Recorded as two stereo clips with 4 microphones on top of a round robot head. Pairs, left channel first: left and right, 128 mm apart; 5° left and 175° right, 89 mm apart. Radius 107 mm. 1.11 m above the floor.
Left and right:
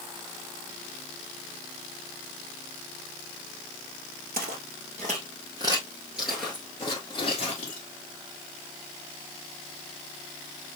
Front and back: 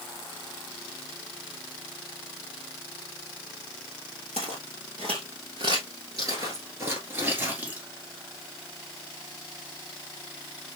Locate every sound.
4.3 s footsteps: 125° right, 1.6 m; by 7.8 s 120° left, 1.4 m